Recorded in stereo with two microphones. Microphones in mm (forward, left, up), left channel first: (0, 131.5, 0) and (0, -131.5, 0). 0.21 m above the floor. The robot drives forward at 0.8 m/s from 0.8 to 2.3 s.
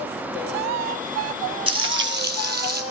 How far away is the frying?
About 0.7 m.